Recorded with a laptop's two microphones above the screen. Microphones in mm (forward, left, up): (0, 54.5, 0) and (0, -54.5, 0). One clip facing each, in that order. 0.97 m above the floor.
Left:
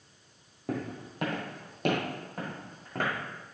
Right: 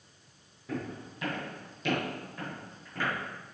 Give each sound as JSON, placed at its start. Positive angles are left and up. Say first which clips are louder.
{"t": 0.7, "sound": "footsteps", "louder": "left 2 dB", "side_deg": 65, "distance_m": 1.9}